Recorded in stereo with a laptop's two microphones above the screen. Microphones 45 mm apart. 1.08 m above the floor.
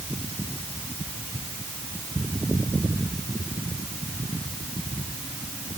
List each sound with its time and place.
Only background noise.